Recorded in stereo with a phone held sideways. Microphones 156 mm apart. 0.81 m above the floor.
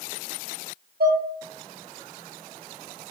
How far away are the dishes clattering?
About 1.1 m.